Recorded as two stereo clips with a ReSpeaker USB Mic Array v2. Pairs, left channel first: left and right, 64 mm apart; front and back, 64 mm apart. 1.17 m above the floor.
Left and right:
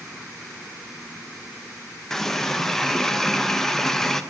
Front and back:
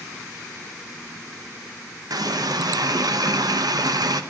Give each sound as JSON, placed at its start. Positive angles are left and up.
{"t": 2.1, "sound": "a running tap", "azimuth_deg": 175, "distance_m": 0.6}